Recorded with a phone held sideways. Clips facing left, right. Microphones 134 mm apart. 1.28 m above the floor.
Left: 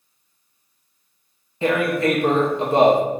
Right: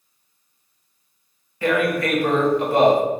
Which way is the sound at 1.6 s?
25° left (ahead or behind).